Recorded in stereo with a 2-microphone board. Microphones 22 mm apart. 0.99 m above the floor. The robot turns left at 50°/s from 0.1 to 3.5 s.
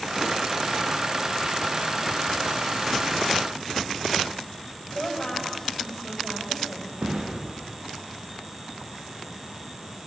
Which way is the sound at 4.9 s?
25° left (ahead or behind).